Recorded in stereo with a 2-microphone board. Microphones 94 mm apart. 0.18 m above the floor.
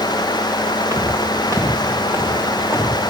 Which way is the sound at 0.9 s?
35° right (ahead or behind).